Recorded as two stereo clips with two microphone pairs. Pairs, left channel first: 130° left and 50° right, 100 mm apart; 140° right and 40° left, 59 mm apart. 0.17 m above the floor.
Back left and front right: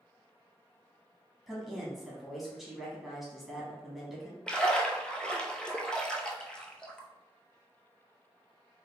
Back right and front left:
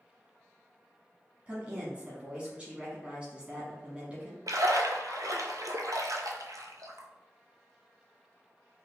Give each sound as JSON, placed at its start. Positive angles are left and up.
{"t": 1.5, "sound": "a woman speaking", "azimuth_deg": 35, "distance_m": 1.0}
{"t": 4.5, "sound": "a splash", "azimuth_deg": 50, "distance_m": 0.5}